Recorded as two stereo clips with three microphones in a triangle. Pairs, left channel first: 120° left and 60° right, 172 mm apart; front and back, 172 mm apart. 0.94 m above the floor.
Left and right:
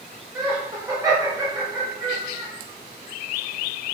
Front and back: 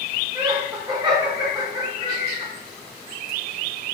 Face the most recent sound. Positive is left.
turn(degrees=-125)